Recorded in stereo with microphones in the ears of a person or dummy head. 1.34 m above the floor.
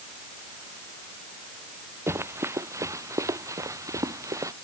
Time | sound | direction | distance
2.1 | running footsteps | 10° right (ahead or behind) | ?